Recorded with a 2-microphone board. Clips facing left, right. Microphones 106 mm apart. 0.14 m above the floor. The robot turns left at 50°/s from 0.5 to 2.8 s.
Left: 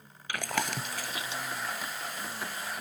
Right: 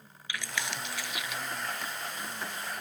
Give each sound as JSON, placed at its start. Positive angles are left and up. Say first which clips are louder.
{"t": 0.3, "sound": "chewing", "louder": "left 4 dB", "side_deg": 60, "distance_m": 0.8}